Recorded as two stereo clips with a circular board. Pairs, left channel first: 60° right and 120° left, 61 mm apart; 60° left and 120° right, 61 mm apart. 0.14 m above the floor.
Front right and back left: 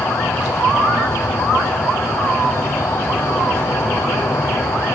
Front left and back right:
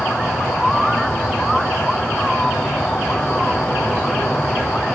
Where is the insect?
25° right, 3.5 m.